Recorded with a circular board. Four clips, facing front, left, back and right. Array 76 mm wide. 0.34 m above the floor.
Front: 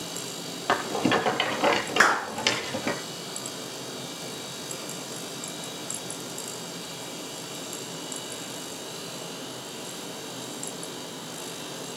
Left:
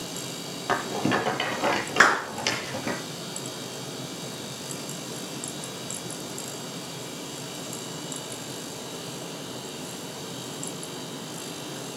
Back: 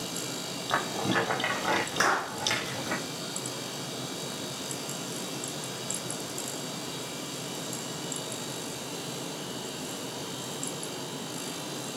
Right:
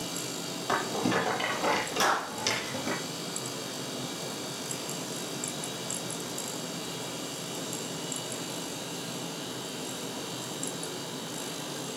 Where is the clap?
65° left, 3.5 m.